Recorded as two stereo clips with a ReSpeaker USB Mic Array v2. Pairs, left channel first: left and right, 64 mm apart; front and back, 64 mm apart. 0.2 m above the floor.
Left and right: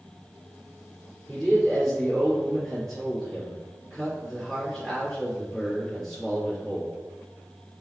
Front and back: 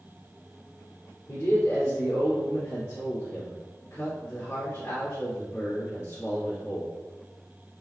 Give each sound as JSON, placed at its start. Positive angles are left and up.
{"t": 1.3, "sound": "a man speaking", "azimuth_deg": 20, "distance_m": 1.9}